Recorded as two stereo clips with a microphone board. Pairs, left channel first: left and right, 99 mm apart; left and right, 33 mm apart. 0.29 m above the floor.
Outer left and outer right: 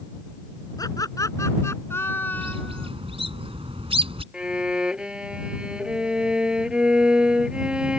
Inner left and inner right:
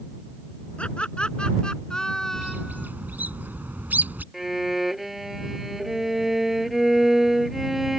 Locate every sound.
0.8 s laughter: 40° left (ahead or behind); by 2.9 s 10° left (ahead or behind)
2.3 s a bird: 65° right (ahead or behind)
4.3 s a violin: 10° right (ahead or behind)